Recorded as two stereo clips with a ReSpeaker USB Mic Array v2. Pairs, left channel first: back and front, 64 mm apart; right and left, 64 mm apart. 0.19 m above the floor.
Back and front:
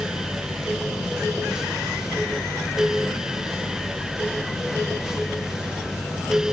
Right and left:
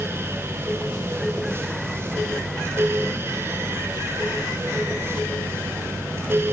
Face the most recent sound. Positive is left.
No sound to turn to.